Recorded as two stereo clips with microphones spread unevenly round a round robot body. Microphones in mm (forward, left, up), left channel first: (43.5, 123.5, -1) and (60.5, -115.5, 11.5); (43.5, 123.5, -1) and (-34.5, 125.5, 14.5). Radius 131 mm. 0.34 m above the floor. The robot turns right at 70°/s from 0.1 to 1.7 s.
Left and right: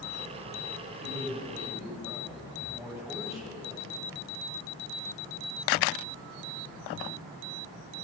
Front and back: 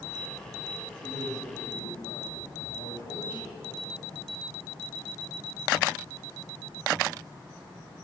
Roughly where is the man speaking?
Ahead right.